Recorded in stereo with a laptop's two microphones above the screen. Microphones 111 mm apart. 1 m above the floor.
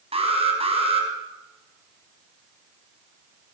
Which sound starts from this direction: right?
An alarm, at 0.1 s.